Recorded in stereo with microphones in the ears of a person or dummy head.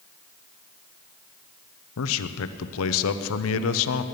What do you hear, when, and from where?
2.0 s a man speaking: 80° left, 0.9 m